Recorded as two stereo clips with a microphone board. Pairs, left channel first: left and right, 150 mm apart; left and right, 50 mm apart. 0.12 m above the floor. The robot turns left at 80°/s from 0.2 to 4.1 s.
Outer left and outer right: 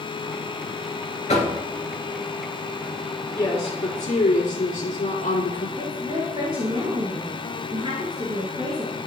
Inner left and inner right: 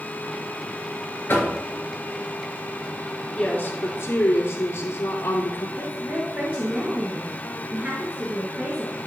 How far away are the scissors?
No scissors in this recording.